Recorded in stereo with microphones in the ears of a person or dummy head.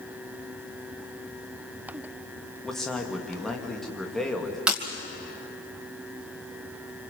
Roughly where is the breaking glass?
Centre.